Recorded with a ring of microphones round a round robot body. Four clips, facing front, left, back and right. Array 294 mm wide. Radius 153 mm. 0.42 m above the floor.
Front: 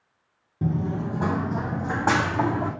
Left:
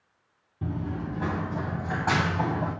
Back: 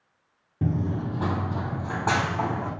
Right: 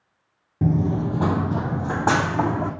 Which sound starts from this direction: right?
Running footsteps, at 0.6 s.